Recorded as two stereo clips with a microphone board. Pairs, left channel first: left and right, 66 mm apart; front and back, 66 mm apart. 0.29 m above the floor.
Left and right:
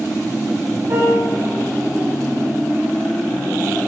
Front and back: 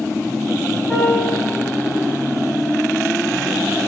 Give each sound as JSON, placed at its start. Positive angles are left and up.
{"t": 0.9, "sound": "a piano", "azimuth_deg": -70, "distance_m": 5.5}